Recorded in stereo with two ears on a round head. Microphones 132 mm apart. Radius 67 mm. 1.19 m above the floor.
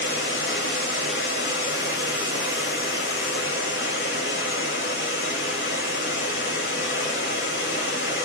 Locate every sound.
0.0 s running water: 80° left, 3.5 m